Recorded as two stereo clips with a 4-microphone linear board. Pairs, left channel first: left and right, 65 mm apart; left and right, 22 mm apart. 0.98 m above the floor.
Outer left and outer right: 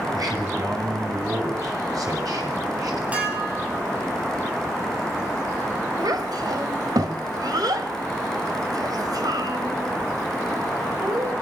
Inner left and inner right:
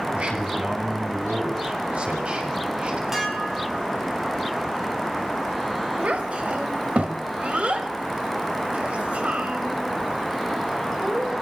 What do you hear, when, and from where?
0.1 s a man speaking: 80° right, 7 m; by 3.0 s 65° right (ahead or behind), 6.5 m
3.1 s dishes clattering: 20° right (ahead or behind), 6.5 m
6.0 s a child speaking: 80° right, 3 m